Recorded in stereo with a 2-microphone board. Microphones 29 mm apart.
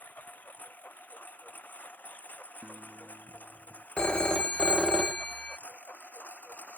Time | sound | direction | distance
0.0 | a lawn mower | 75° left (ahead or behind) | ?
2.6 | a guitar | 45° right (ahead or behind) | ?
4.0 | a phone ringing | 40° left (ahead or behind) | ?